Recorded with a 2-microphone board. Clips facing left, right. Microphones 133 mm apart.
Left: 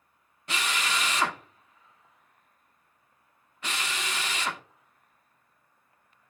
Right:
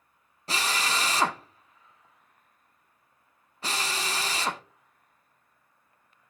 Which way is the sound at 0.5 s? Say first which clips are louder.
Right 2 dB; 35° right (ahead or behind).